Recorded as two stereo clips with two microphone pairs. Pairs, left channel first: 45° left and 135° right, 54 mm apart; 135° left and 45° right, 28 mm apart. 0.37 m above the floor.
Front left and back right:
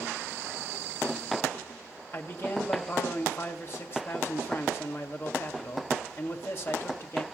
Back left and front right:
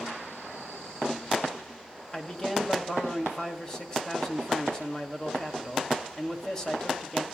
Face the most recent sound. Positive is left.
turn(degrees=75)